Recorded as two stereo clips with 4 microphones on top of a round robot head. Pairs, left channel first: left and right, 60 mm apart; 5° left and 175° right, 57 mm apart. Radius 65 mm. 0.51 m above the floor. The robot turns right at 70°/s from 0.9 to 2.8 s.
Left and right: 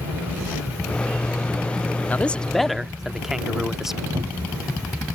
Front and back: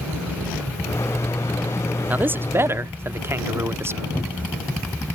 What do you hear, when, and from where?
2.1 s a man speaking: 140° left; by 4.0 s 170° right
4.2 s a cupboard door: 60° right